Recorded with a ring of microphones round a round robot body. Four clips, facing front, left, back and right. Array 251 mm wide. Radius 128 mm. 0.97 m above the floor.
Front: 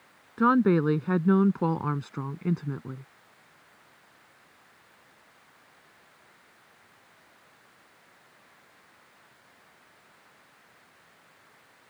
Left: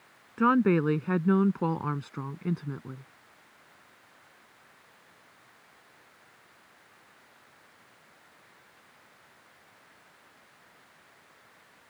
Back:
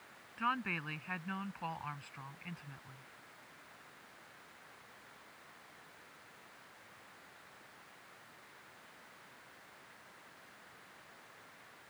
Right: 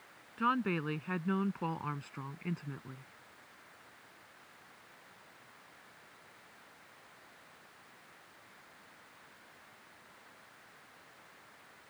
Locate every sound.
0.4 s a woman speaking: 35° left; by 3.0 s 25° left